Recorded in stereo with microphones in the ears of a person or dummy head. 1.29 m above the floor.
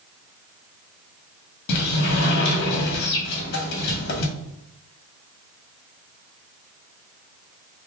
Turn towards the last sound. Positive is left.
turn(degrees=65)  # may be behind; listen again after turning